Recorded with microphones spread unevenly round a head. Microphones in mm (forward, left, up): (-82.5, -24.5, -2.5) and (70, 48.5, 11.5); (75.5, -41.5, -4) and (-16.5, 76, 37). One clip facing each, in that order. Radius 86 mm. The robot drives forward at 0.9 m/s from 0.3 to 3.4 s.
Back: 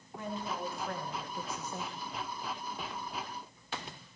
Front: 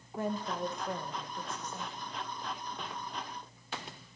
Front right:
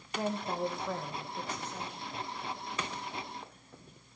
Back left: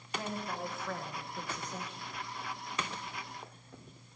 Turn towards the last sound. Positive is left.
turn(degrees=-170)